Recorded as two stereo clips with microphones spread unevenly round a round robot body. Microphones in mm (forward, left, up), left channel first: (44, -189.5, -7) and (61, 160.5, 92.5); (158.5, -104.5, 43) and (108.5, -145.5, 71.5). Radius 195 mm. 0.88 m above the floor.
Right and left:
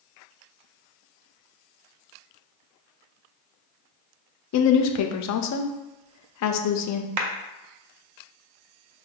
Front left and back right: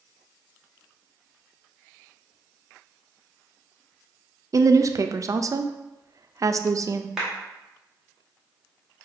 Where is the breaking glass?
I don't hear breaking glass.